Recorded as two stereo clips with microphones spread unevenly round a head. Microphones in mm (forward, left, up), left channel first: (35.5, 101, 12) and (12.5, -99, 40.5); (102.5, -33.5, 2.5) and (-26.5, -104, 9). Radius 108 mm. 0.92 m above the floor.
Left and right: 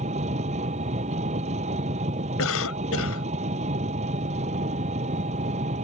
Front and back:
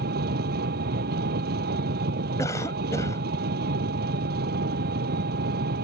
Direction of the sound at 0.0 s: 155° right.